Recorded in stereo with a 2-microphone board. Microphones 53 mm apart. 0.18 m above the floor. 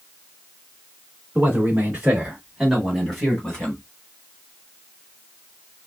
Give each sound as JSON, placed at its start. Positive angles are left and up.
{"t": 1.4, "sound": "a man speaking", "side_deg": -35, "distance_m": 1.9}